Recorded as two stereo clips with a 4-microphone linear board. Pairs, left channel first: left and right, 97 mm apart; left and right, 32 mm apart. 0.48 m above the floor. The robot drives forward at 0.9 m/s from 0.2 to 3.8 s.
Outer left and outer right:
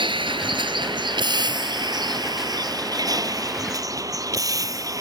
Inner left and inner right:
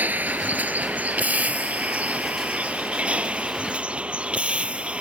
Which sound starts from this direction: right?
A vehicle, at 0.0 s.